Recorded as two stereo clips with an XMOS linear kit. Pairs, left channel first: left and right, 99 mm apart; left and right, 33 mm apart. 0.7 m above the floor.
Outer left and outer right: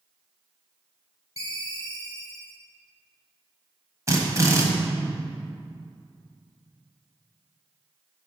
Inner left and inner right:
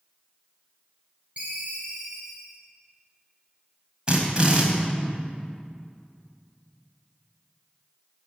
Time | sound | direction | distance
1.4 | a ringtone | 40° right (ahead or behind) | 2.5 m
4.1 | a drill | 30° right (ahead or behind) | 1.7 m